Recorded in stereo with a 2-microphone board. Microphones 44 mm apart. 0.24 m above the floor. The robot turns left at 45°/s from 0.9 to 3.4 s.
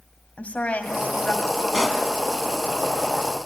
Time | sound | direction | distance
0.4 | a woman speaking | 100° left | 1.4 m
1.7 | a pop | 15° left (ahead or behind) | 1.7 m